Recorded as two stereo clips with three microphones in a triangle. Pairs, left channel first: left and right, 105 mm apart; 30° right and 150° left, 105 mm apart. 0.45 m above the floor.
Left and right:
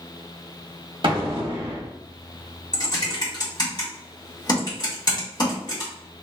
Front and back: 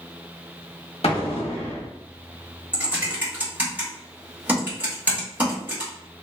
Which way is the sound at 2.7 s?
85° left.